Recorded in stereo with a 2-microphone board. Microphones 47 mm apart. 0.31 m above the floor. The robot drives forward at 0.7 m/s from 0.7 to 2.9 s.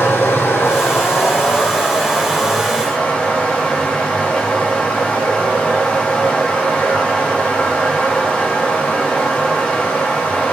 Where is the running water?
65° left (ahead or behind), 1.1 m; by 10.5 s 25° left (ahead or behind), 2 m.